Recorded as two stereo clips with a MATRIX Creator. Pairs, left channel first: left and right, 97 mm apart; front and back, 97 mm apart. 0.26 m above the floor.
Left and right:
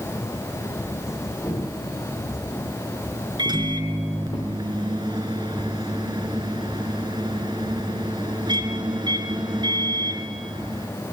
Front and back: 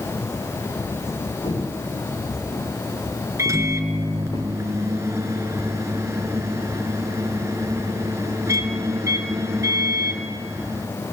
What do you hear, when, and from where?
1.4 s footsteps: 30° left, 8.5 m; by 4.4 s 50° left, 7 m
3.4 s a microwave: 125° right, 2.5 m